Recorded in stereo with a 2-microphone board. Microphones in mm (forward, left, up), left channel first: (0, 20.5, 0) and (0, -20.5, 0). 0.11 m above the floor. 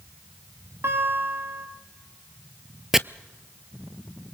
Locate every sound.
0.8 s a guitar: 65° right (ahead or behind), 5.5 m
2.9 s chopping: 10° right (ahead or behind), 0.5 m